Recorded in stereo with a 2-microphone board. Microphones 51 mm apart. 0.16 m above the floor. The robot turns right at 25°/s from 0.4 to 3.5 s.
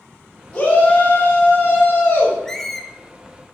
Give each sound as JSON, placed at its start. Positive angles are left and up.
{"t": 0.5, "sound": "a shout", "azimuth_deg": 40, "distance_m": 1.4}
{"t": 2.5, "sound": "a squeak", "side_deg": 10, "distance_m": 0.6}